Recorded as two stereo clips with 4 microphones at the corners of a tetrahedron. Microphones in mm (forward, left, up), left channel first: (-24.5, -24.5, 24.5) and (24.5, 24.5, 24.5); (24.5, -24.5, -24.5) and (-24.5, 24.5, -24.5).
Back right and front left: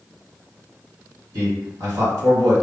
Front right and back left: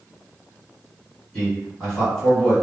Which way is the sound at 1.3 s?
35° left.